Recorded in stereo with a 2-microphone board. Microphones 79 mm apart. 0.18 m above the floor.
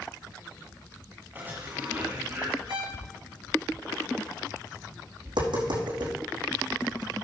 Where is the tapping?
85° right, 5 m.